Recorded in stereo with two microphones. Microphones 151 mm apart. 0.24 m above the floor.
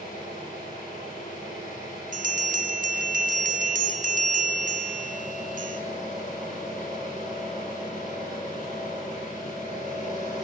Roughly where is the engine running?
Left.